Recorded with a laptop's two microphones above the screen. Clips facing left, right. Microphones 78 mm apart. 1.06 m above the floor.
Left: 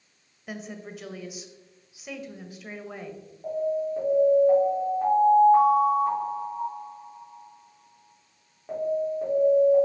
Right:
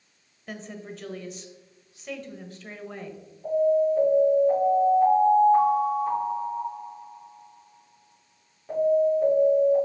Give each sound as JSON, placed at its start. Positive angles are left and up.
{"t": 0.5, "sound": "a woman speaking", "side_deg": 5, "distance_m": 1.2}
{"t": 3.4, "sound": "an alarm", "side_deg": 25, "distance_m": 3.5}